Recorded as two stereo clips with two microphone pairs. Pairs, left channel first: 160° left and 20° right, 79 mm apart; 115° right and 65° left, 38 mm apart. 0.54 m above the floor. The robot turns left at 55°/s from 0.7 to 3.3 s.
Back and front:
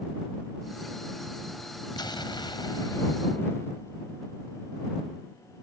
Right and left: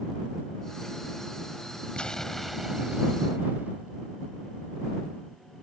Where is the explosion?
Straight behind; by 4.0 s 105° left.